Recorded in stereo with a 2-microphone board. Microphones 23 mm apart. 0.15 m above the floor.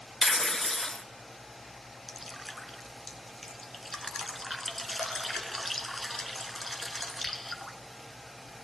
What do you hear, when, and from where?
0.2 s tearing paper: 20° left (ahead or behind), 1.0 m
2.1 s dripping: 5° left (ahead or behind), 1.2 m